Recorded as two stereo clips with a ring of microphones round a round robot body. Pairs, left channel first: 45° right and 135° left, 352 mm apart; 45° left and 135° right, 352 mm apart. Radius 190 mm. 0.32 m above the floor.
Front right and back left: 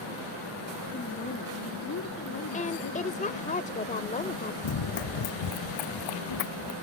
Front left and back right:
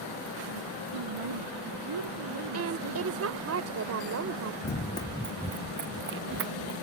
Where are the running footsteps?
15° right; by 6.7 s 80° right.